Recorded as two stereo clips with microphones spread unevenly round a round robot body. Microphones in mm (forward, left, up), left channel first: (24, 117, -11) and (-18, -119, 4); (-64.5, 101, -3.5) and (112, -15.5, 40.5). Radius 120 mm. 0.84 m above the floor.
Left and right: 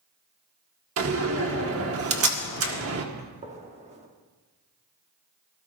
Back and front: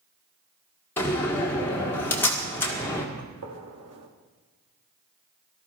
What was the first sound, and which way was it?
A door slam, 135° right.